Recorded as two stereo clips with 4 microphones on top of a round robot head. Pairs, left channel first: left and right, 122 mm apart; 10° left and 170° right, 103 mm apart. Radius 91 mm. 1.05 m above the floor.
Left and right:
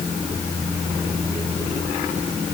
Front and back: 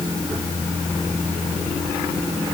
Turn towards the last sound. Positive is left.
No sound to turn to.